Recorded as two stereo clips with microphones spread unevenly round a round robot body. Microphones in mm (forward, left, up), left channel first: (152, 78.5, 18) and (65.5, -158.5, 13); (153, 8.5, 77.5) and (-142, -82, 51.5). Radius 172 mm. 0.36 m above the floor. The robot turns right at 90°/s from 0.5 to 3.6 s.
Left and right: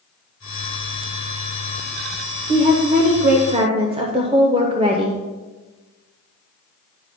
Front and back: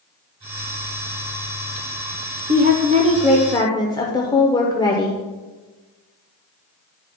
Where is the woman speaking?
160° right, 1.0 m; by 5.2 s 60° right, 1.0 m.